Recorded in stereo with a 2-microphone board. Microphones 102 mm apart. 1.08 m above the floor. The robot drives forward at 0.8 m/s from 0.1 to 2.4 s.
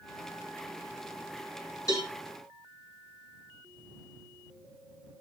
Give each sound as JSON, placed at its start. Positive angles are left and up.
{"t": 1.9, "sound": "a cowbell", "side_deg": 35, "distance_m": 3.5}